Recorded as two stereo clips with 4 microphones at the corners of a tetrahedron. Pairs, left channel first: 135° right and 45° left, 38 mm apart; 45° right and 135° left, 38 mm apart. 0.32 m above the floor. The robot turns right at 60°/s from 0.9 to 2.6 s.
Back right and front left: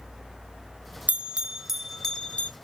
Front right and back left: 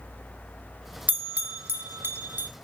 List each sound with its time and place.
1.1 s a bell: 90° left, 0.7 m; by 2.5 s 175° left, 0.7 m